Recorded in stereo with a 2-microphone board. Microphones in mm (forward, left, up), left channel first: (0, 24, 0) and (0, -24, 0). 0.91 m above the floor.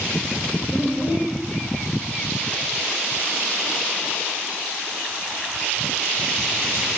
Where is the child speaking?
35° right (ahead or behind), 4 m.